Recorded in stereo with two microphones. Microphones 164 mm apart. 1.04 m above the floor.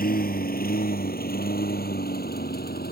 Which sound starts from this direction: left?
A lawn mower, at 0.0 s.